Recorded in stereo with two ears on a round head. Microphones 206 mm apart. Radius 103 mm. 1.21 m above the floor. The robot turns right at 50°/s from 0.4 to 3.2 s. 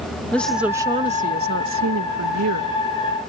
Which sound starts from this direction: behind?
A woman speaking, at 0.3 s.